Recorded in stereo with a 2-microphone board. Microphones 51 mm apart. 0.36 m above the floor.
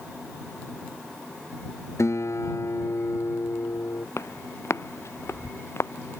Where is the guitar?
75° left (ahead or behind).